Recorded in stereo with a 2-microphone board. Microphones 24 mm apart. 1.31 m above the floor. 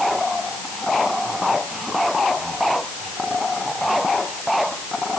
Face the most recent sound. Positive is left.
No sound to turn to.